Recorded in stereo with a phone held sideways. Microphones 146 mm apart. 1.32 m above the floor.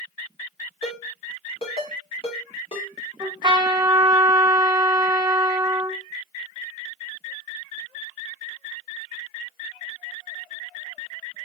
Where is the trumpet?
30° right (ahead or behind), 1.1 m.